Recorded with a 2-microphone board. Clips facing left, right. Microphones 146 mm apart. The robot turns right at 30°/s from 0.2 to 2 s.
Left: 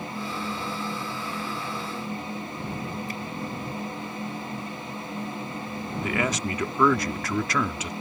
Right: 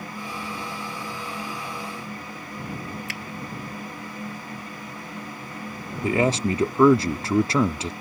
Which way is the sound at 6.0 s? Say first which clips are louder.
Right 7 dB; 30° right (ahead or behind).